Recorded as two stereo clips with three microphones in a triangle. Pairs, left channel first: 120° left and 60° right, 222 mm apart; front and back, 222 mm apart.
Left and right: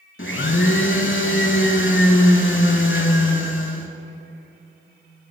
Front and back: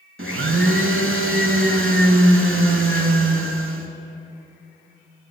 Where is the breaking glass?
I don't hear breaking glass.